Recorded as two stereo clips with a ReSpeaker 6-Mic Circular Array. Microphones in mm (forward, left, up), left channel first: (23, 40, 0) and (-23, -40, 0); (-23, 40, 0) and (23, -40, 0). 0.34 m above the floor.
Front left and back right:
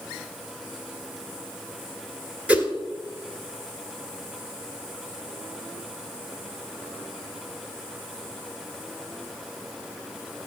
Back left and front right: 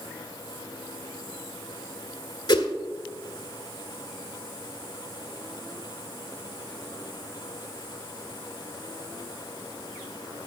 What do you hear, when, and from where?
2.5 s a whoosh: 165° left, 1.7 m